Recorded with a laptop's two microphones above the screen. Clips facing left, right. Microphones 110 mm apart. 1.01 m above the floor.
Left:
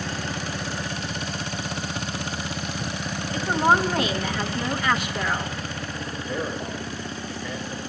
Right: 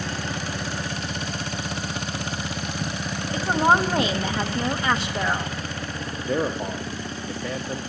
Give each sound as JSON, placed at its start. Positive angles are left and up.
{"t": 3.3, "sound": "a woman speaking", "side_deg": -25, "distance_m": 0.9}
{"t": 6.3, "sound": "a man speaking", "side_deg": -70, "distance_m": 0.8}